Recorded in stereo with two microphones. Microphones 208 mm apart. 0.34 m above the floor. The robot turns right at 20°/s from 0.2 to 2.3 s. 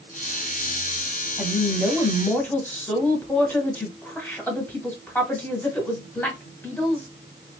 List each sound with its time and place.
1.4 s a woman speaking: centre (ahead or behind), 1.1 m; by 7.1 s 10° left (ahead or behind), 1.1 m